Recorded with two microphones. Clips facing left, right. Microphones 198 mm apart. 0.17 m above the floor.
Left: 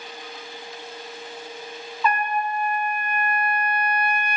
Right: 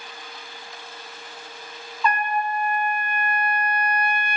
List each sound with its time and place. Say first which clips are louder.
2.0 s a trumpet: even; 5° left (ahead or behind), 1.0 m